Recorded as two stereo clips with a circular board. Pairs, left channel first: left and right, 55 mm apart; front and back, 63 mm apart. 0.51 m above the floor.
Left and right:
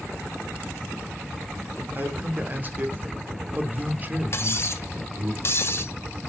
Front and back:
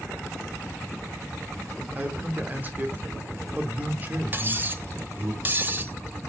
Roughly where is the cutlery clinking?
Behind left.